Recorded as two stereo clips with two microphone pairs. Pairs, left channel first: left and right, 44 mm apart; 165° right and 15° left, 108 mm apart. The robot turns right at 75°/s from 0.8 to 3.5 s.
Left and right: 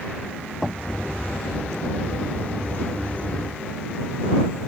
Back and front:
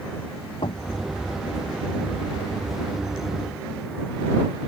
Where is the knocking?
Straight behind.